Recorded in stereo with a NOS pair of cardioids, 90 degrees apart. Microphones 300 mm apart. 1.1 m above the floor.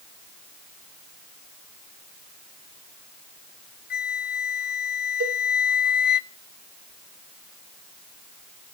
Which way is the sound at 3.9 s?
35° left.